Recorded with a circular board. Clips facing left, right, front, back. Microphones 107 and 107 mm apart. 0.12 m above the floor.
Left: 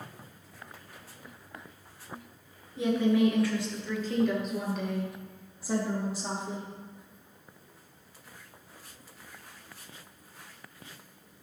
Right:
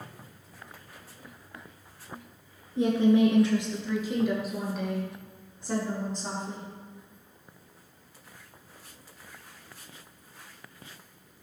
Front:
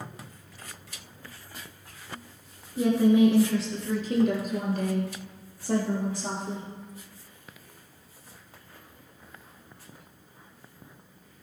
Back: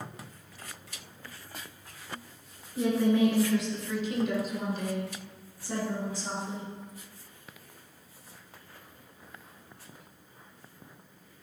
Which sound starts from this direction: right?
A woman speaking, at 2.8 s.